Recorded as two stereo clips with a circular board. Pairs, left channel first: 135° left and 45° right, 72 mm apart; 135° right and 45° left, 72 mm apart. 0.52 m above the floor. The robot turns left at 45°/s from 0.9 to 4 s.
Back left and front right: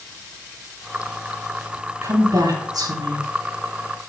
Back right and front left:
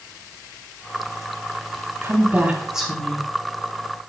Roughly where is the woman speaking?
Ahead.